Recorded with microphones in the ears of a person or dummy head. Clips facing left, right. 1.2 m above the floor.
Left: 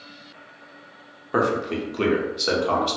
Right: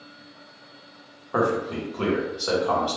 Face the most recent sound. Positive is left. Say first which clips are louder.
# left 1 dB
turn(degrees=30)  # may be behind; listen again after turning